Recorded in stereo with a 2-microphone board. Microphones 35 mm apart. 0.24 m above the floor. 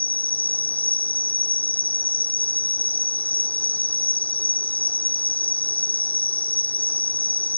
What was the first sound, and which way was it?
An insect, 55° left (ahead or behind).